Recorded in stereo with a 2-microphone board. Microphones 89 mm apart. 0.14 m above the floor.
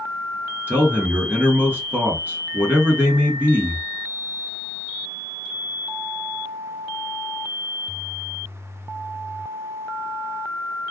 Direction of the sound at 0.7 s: 25° right (ahead or behind).